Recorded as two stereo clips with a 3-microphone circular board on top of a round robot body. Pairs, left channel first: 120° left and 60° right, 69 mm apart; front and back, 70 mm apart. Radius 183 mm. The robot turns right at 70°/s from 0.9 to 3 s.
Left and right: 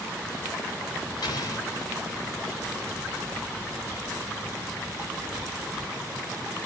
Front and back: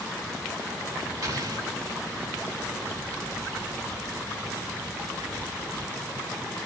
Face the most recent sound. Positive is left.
turn(degrees=-95)